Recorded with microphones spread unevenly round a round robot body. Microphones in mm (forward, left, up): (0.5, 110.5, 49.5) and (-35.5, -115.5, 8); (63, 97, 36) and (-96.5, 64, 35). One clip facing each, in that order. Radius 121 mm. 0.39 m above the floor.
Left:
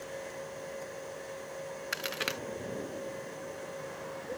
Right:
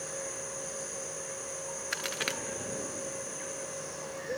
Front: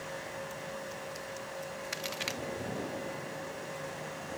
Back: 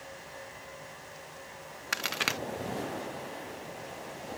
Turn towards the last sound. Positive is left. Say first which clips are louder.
# even, back 7 dB
turn(degrees=170)